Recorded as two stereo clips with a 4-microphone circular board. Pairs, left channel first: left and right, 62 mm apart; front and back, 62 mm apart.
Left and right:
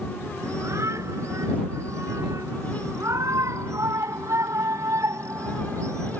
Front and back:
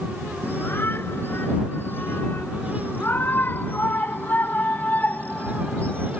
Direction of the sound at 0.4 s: 55° right.